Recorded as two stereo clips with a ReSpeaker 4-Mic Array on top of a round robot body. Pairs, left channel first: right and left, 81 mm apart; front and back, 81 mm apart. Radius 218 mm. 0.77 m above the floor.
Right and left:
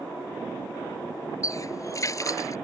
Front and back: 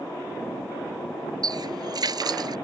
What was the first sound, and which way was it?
A running tap, 140° right.